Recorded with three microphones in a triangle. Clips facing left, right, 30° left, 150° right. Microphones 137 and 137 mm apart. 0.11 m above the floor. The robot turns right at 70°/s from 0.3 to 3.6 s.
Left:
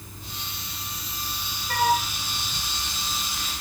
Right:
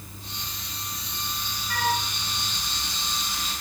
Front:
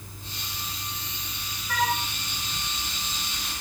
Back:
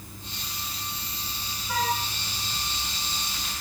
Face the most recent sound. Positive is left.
turn(degrees=-95)